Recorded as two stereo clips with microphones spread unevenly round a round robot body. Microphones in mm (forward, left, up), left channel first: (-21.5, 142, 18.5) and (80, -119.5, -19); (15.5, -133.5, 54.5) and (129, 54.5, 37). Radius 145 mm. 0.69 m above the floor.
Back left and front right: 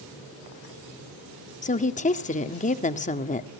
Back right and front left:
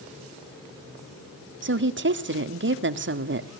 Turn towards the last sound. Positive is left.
turn(degrees=45)